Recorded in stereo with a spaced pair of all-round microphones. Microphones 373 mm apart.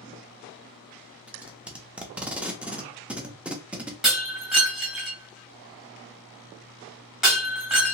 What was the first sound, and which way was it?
Tape being pulled, 5° right (ahead or behind).